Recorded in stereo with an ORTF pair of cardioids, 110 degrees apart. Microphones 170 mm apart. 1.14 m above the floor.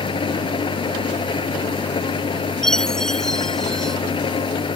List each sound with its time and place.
0.0 s an engine running: 30° left
2.6 s a chime: straight ahead